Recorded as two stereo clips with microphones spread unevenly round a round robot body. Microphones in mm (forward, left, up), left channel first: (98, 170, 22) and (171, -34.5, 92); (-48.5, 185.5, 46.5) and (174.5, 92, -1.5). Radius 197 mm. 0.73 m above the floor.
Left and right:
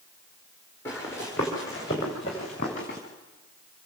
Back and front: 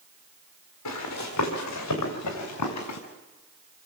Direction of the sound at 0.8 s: 165° right.